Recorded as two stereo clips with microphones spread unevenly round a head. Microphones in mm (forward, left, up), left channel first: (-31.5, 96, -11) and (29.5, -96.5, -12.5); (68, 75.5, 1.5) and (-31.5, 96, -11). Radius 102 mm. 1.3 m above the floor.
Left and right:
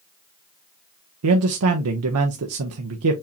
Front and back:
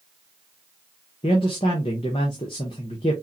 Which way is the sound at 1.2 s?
70° right.